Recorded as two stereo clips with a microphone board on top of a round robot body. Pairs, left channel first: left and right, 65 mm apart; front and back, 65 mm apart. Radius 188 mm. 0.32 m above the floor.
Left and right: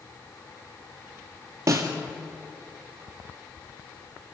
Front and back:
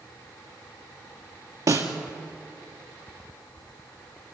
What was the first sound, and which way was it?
A snare drum, 140° right.